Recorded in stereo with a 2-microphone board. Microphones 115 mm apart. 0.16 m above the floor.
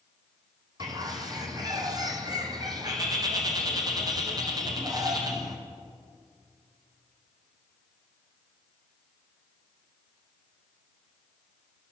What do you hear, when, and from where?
0.8 s a bird: 35° right (ahead or behind), 1.4 m